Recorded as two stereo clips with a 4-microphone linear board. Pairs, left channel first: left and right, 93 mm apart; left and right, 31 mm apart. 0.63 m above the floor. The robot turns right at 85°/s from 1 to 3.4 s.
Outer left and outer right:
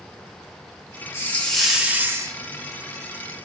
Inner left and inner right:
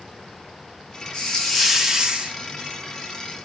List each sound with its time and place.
1.1 s a hiss: 140° left, 1.0 m; by 2.4 s 115° right, 1.0 m